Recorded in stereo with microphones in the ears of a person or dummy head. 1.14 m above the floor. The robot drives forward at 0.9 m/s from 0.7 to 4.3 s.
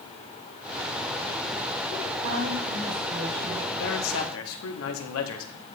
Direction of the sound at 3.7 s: 70° left (ahead or behind).